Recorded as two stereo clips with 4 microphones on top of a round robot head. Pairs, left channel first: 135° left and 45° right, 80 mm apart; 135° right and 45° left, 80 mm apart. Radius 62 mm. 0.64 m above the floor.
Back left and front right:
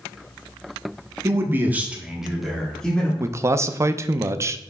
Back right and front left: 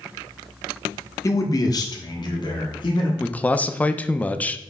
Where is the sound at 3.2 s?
70° right, 0.6 m.